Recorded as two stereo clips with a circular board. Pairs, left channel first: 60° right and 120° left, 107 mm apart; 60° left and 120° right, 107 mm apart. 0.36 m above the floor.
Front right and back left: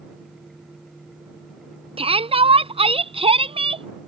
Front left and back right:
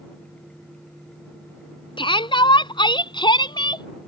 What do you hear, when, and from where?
2.0 s a shout: 100° left